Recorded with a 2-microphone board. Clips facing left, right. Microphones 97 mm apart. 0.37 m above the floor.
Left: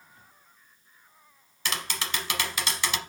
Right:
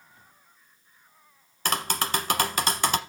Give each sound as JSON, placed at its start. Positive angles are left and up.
{"t": 1.6, "sound": "tapping", "side_deg": -45, "distance_m": 0.8}